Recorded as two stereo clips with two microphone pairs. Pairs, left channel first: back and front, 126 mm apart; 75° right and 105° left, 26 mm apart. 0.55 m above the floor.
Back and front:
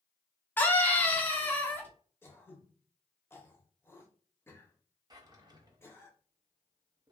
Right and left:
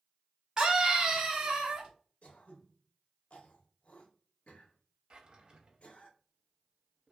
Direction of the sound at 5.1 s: 55° left.